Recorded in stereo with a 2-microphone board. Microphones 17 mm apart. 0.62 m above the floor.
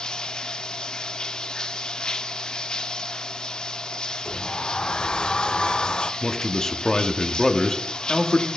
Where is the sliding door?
75° left (ahead or behind), 0.6 m.